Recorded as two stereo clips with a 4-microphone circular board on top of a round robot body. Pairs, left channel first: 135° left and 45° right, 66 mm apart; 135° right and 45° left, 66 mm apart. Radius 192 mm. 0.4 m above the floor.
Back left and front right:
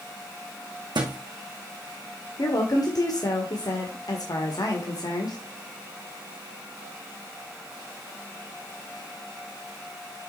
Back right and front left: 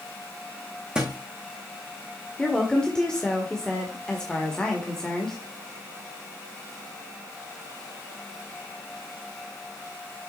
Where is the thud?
35° right, 1.8 m.